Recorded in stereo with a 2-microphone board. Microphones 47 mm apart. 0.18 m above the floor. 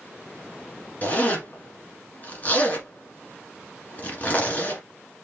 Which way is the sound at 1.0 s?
35° left (ahead or behind).